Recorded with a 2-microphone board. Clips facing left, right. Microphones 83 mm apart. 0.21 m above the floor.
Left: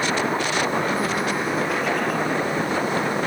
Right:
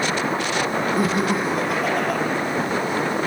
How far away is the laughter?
About 7.5 m.